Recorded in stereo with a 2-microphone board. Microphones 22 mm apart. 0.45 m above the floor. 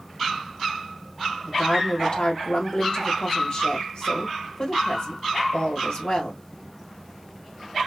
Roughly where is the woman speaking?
Left.